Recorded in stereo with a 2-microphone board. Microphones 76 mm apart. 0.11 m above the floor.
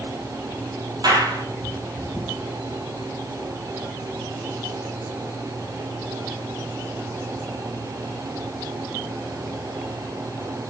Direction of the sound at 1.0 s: 70° right (ahead or behind).